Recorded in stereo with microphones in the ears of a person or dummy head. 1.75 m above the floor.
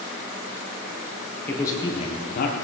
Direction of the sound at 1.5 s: 10° left (ahead or behind).